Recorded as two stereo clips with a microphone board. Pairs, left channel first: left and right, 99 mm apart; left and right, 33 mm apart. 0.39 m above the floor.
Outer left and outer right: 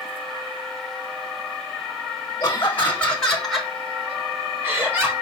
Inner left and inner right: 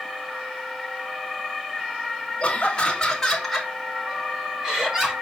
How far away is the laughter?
About 1.0 m.